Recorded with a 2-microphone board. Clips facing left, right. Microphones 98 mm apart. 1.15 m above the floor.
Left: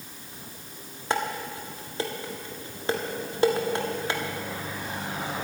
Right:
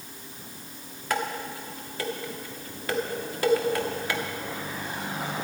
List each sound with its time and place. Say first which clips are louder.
1.1 s dishes clattering: left 1 dB; 25° left (ahead or behind), 1.4 m